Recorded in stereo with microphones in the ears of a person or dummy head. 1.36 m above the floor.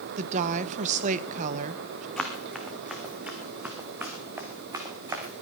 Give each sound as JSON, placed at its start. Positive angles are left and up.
{"t": 0.2, "sound": "a woman speaking", "side_deg": -40, "distance_m": 1.0}
{"t": 2.2, "sound": "running footsteps", "side_deg": 0, "distance_m": 3.5}